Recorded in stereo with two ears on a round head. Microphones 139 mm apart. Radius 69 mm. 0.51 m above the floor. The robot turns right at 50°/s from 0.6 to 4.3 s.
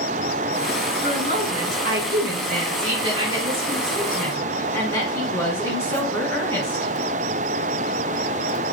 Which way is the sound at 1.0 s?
135° right.